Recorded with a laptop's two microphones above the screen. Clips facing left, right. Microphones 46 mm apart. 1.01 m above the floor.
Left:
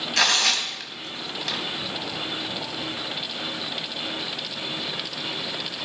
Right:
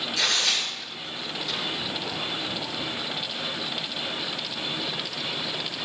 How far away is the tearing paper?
About 3.5 m.